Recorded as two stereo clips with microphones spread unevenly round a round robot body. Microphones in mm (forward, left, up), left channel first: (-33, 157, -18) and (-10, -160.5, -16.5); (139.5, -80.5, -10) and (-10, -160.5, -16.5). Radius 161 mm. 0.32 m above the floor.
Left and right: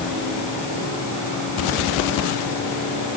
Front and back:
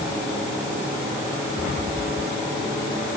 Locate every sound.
Only background noise.